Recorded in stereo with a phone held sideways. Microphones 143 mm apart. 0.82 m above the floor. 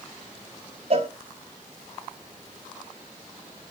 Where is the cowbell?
45° right (ahead or behind), 1.2 m.